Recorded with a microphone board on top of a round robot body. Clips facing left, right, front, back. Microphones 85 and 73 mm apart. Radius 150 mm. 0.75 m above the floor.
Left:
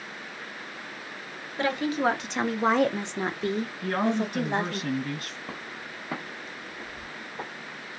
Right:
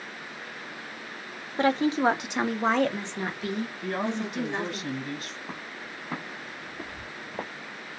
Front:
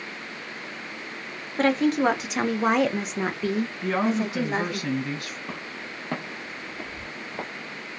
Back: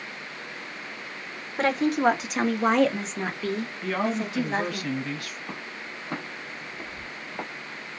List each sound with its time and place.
1.6 s a woman speaking: 100° right, 1.0 m; by 4.8 s 70° left, 1.5 m
3.8 s a woman speaking: 65° left, 1.7 m
5.5 s footsteps: 70° left, 1.1 m; by 7.5 s 75° right, 1.2 m